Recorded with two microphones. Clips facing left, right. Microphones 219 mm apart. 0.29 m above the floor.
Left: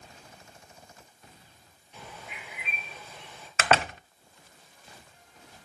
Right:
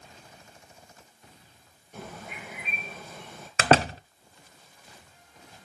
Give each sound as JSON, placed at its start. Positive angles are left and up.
{"t": 1.9, "sound": "a bird", "side_deg": -50, "distance_m": 4.5}
{"t": 3.6, "sound": "a door slam", "side_deg": -35, "distance_m": 0.8}